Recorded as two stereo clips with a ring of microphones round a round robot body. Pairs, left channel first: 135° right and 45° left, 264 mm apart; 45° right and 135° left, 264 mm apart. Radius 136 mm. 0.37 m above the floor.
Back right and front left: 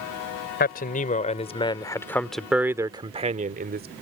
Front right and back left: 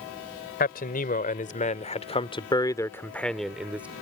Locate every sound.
0.6 s a man speaking: 90° right; by 3.9 s 55° left